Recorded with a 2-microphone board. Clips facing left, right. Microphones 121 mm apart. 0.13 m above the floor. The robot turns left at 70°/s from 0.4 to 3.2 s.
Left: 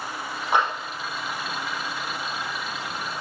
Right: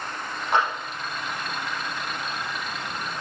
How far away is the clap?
About 4.5 m.